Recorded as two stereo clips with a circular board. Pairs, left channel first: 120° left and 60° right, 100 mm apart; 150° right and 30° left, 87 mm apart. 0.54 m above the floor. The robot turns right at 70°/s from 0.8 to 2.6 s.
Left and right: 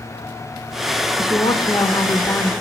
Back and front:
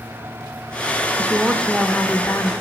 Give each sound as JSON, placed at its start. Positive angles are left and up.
{"t": 1.2, "sound": "a woman speaking", "azimuth_deg": 90, "distance_m": 1.5}